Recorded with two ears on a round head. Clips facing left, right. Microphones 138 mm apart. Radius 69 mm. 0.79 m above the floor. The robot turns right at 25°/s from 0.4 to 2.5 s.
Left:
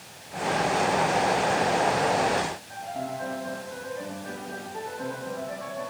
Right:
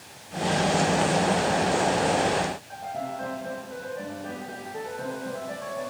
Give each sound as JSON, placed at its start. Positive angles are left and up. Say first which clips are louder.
{"t": 2.7, "sound": "a piano", "louder": "even", "side_deg": -50, "distance_m": 5.0}